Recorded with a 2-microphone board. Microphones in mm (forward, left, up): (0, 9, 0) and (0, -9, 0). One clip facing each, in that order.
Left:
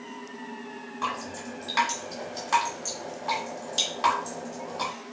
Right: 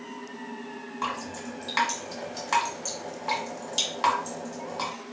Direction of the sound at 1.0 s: 10° right (ahead or behind).